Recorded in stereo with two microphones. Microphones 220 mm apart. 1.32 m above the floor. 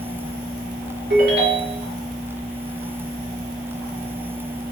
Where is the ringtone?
55° right (ahead or behind), 1.6 m.